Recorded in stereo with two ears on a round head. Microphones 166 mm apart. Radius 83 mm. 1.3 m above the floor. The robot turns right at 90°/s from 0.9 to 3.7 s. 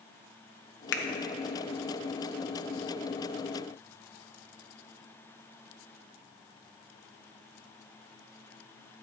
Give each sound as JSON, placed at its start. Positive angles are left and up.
{"t": 0.9, "sound": "a finger snap", "side_deg": 65, "distance_m": 0.8}